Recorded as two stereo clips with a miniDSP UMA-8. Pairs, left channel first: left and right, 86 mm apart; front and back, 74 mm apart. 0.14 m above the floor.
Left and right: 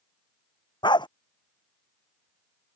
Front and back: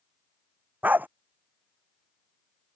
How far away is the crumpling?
No crumpling in this recording.